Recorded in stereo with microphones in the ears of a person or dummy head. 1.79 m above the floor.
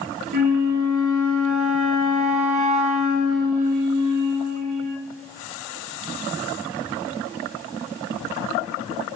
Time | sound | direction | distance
0.3 | a flute | 45° right (ahead or behind) | 0.5 m